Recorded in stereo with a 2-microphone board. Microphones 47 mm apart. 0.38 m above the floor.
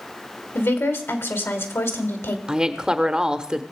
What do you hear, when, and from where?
0.6 s a woman speaking: 60° left (ahead or behind), 1.6 m
2.5 s a woman speaking: 20° right (ahead or behind), 0.8 m